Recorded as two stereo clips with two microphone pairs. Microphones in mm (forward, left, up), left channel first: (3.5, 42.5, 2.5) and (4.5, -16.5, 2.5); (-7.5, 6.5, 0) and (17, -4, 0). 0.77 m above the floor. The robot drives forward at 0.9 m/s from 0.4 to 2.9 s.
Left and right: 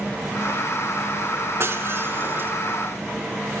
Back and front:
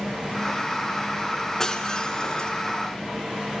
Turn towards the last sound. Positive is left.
turn(degrees=-145)